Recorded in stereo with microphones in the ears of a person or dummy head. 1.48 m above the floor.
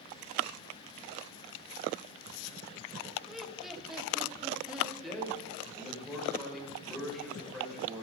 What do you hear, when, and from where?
3.3 s laughter: 5° left (ahead or behind), 1.8 m; by 4.9 s centre (ahead or behind), 3 m
5.0 s a man speaking: 5° left (ahead or behind), 7 m